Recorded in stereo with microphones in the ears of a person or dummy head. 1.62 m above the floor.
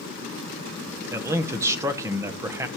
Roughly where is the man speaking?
Centre.